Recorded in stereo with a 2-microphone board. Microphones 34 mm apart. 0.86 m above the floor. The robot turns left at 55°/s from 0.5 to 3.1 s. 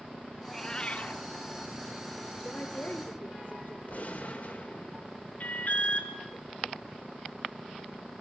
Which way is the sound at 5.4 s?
45° left (ahead or behind).